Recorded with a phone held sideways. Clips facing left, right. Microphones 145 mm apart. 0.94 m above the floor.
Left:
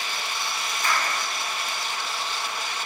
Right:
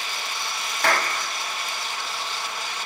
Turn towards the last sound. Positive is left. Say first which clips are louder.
# right 4 dB
turn(degrees=-75)  # may be behind; listen again after turning